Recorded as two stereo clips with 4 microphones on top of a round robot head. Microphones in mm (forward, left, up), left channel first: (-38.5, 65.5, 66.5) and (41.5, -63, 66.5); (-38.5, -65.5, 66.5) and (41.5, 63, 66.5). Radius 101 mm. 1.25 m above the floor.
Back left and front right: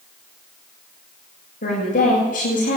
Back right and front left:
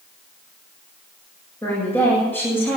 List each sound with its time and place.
1.6 s a woman speaking: 160° left, 7.5 m